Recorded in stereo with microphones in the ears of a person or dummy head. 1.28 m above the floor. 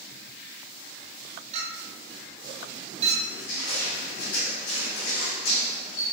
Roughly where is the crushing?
Left.